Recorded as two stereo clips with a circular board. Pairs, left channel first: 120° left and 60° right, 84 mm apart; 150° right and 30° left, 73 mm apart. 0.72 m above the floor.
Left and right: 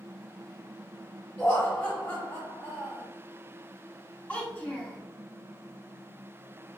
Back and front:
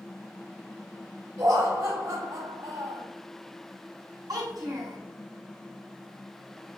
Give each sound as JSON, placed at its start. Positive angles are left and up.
{"t": 1.4, "sound": "laughter", "azimuth_deg": 45, "distance_m": 2.0}
{"t": 4.3, "sound": "a child speaking", "azimuth_deg": 45, "distance_m": 2.0}